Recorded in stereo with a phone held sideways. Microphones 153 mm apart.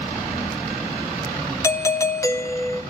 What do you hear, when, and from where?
1.6 s a doorbell: 20° left (ahead or behind), 0.8 m